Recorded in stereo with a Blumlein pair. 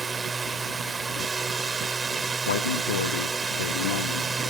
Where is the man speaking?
60° left.